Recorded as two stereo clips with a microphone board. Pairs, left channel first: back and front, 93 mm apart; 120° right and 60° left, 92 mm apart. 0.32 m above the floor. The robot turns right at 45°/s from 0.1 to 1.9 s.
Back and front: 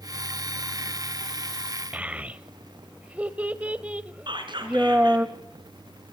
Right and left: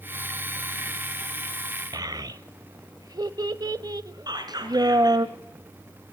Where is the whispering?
25° left, 4 m.